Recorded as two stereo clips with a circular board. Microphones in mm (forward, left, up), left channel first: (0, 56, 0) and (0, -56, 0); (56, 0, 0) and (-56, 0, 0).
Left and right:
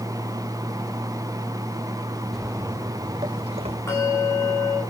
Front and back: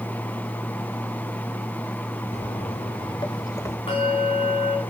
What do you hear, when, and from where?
2.3 s footsteps: 5° left, 1.4 m; by 3.8 s 65° right, 2 m
3.9 s a bell: 25° left, 8.5 m